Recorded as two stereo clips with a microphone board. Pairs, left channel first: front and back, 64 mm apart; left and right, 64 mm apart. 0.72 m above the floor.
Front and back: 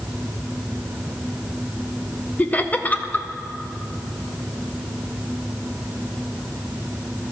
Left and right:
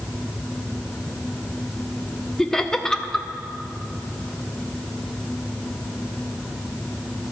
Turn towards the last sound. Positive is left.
turn(degrees=20)